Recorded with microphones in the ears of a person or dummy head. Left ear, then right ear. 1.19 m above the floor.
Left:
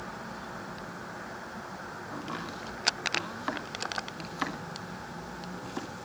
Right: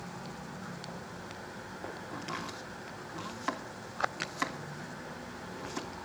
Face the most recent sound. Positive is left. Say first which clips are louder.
# left 2 dB
turn(degrees=-5)  # may be behind; listen again after turning